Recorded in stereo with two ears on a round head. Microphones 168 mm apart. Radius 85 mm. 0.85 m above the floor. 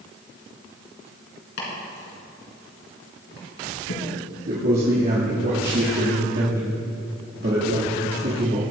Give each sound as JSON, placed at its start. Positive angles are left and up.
{"t": 1.6, "sound": "chopping", "side_deg": 70, "distance_m": 3.0}
{"t": 4.5, "sound": "a man speaking", "side_deg": -50, "distance_m": 2.0}